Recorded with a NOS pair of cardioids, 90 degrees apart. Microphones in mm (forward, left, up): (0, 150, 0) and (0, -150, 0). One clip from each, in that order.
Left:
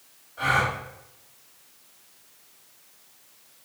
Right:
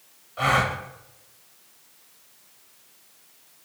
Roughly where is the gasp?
Ahead right.